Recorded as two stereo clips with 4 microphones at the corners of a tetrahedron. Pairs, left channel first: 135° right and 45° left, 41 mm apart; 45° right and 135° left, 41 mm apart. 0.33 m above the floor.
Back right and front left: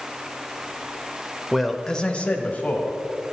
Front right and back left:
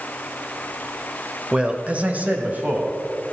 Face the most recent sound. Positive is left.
turn(degrees=180)